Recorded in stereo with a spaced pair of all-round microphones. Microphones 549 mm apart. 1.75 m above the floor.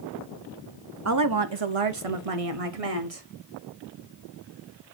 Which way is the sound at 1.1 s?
30° right (ahead or behind).